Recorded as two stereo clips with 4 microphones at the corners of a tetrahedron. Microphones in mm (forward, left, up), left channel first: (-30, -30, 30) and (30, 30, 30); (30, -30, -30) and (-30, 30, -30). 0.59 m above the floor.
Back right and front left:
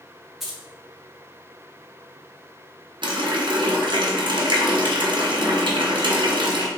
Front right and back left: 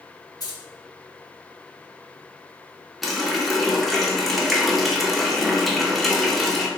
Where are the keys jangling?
40° right, 0.6 m.